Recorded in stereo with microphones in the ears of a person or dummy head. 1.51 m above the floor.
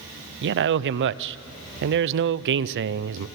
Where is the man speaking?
65° right (ahead or behind), 0.6 m.